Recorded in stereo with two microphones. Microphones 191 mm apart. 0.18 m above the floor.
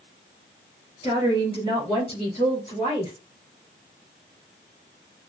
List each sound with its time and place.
1.0 s a woman speaking: 30° left (ahead or behind), 3 m